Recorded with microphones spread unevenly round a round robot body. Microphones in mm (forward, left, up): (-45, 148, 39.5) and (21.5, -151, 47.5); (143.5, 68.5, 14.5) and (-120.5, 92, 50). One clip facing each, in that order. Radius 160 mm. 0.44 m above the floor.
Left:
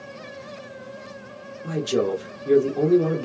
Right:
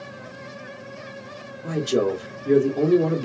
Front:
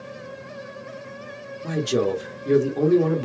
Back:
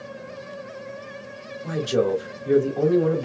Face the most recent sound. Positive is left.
turn(degrees=5)